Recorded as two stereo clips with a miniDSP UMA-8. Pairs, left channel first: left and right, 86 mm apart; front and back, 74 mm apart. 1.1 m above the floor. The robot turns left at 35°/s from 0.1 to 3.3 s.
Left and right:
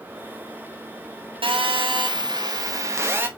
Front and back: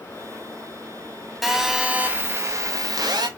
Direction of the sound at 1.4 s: 90° right.